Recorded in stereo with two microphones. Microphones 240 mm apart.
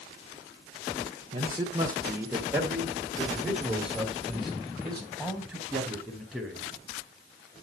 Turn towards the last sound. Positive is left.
turn(degrees=5)  # may be behind; listen again after turning